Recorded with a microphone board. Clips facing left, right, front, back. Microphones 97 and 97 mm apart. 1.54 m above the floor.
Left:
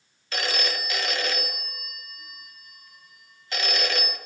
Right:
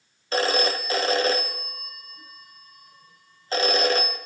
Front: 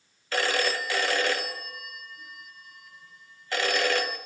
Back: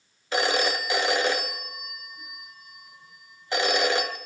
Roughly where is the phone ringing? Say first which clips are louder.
Right 7 dB, back 2 dB; behind right.